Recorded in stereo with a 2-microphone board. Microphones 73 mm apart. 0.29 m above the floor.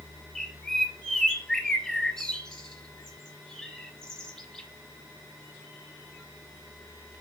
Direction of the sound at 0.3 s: 10° left (ahead or behind).